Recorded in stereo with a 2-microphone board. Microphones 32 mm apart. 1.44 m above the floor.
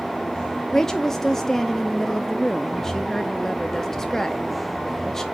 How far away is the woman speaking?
About 0.5 m.